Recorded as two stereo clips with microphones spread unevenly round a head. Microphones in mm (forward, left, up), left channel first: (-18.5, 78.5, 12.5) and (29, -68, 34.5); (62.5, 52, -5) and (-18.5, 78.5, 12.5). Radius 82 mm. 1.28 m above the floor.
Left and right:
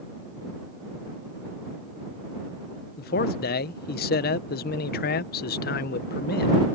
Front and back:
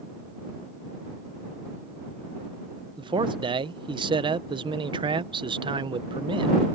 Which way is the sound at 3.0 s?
130° left.